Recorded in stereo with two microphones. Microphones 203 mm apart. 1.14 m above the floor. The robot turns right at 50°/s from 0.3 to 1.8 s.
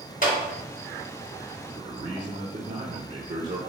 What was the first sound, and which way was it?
A clap, 40° left (ahead or behind).